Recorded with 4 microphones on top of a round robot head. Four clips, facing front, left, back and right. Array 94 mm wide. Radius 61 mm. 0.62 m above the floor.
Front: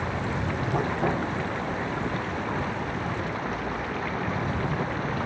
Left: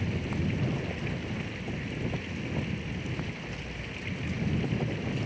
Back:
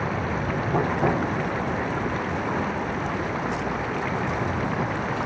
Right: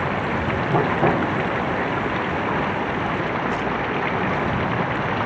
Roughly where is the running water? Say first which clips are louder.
Right 10 dB, back 3 dB; right.